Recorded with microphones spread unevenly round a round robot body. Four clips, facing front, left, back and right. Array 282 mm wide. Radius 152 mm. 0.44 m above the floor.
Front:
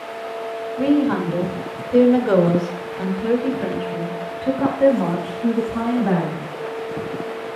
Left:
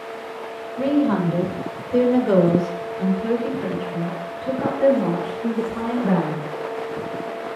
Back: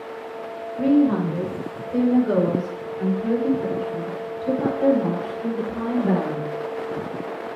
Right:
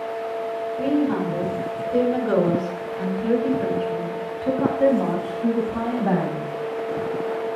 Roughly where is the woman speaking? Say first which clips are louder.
Left 3 dB, even; ahead left.